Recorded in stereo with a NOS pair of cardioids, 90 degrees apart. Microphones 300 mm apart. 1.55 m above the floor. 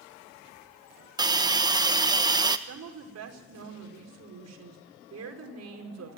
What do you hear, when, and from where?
1.2 s a hiss: 15° right, 1.3 m
2.7 s a woman speaking: 55° right, 5 m